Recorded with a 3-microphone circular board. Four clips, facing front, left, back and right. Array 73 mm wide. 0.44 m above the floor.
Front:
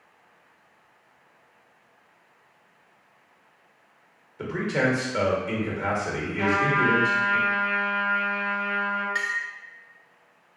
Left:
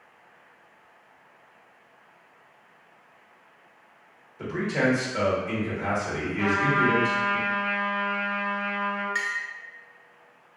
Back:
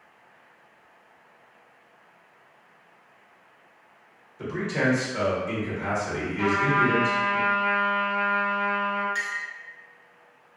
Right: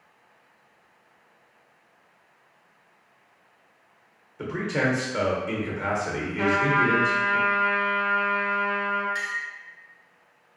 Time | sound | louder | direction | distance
4.4 | a man speaking | even, front 1 dB | 40° right | 1.0 m
6.4 | a trumpet | right 1 dB, even | 80° right | 1.3 m
9.2 | a clink | left 1 dB, front 3 dB | 45° left | 0.6 m